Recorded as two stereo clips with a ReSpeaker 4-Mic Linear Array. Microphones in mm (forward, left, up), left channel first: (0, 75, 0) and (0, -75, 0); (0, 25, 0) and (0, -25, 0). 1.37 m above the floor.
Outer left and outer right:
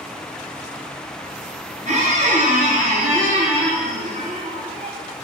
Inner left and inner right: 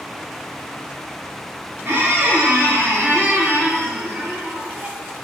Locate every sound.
1.9 s a squeak: 50° right (ahead or behind), 0.6 m